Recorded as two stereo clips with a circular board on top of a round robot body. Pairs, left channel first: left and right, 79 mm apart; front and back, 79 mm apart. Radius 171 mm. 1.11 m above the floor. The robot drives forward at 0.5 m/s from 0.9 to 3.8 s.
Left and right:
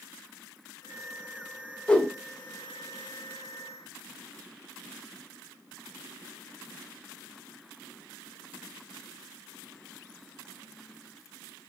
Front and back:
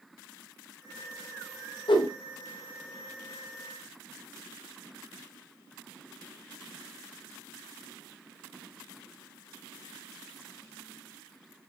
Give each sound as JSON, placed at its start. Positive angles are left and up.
{"t": 1.9, "sound": "a whoosh", "azimuth_deg": 15, "distance_m": 0.6}